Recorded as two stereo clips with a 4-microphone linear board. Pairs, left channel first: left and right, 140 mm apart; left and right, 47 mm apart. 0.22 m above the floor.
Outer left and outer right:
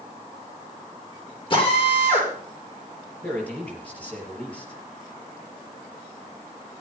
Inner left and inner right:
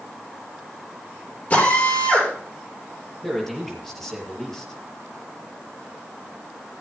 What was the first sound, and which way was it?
A drill, 35° left (ahead or behind).